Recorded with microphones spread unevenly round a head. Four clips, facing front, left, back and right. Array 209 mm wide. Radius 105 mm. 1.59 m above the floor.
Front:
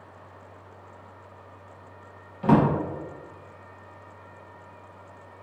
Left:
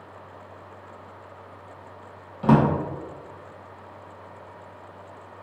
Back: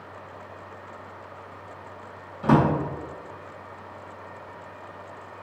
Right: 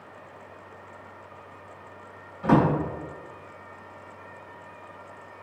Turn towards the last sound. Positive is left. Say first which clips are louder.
# left 2 dB, even
turn(degrees=70)